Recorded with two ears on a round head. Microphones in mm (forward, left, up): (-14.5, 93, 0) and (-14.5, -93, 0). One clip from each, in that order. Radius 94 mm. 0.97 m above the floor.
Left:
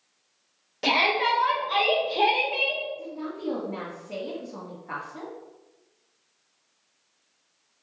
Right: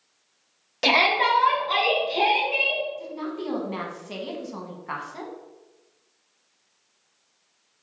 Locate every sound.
0.8 s a shout: 30° right (ahead or behind), 0.7 m; by 2.8 s 25° right (ahead or behind), 1.8 m
3.0 s a woman speaking: 70° right (ahead or behind), 0.9 m